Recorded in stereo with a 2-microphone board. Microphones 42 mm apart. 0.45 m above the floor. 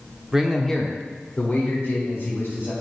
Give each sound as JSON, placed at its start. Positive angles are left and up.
{"t": 0.3, "sound": "a man speaking", "side_deg": -15, "distance_m": 1.0}